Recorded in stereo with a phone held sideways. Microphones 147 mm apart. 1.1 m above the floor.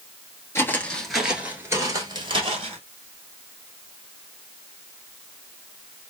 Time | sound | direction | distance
0.6 | footsteps | 15° left (ahead or behind) | 1.1 m